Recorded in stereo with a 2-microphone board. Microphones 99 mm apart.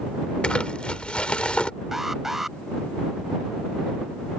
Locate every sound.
0.4 s crumpling: 10° left (ahead or behind)
1.9 s an alarm: 5° right (ahead or behind)